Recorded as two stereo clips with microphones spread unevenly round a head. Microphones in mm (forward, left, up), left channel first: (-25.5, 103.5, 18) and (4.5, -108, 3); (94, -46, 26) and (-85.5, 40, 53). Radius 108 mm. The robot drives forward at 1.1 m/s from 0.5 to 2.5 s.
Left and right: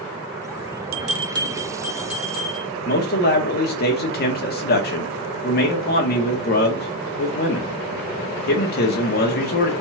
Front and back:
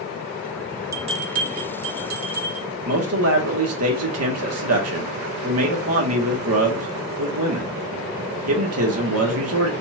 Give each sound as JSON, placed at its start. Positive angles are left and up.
{"t": 0.9, "sound": "a bell", "azimuth_deg": -130, "distance_m": 0.6}
{"t": 2.9, "sound": "a man speaking", "azimuth_deg": 145, "distance_m": 1.4}